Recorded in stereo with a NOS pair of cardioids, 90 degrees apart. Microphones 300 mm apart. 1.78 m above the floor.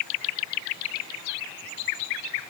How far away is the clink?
I don't hear a clink.